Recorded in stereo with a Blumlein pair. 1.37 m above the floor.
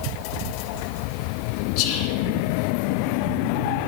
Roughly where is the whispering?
Ahead left.